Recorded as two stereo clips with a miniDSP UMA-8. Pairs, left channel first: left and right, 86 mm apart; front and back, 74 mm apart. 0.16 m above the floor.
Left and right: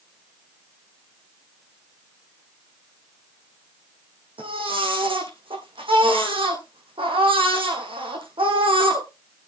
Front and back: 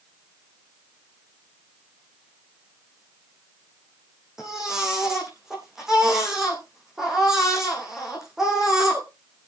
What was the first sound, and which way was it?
A baby crying, 95° right.